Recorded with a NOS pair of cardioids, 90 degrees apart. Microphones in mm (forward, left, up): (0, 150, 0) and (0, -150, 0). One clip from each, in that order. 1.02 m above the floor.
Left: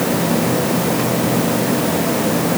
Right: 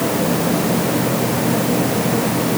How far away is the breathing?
No breathing in this recording.